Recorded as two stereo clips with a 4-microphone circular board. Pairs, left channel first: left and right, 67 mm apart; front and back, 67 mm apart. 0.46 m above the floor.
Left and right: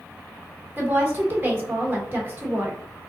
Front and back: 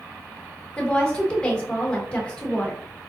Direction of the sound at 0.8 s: 65° right.